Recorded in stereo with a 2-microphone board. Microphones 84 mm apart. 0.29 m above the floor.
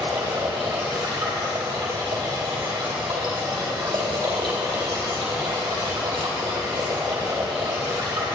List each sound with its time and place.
0.0 s running water: 55° right (ahead or behind), 2.5 m